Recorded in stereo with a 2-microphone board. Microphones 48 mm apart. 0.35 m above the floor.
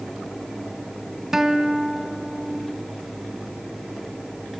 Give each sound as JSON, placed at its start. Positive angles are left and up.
{"t": 1.3, "sound": "a guitar", "side_deg": -10, "distance_m": 1.3}